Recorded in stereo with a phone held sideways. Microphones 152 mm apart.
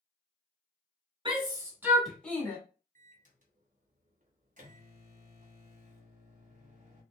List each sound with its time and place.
1.2 s a shout: 35° right (ahead or behind), 1.1 m; by 2.6 s 20° left (ahead or behind), 1.1 m
3.0 s a microwave: 55° right (ahead or behind), 0.7 m